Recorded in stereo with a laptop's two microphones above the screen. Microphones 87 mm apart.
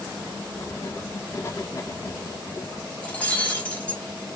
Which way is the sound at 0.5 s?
35° left (ahead or behind).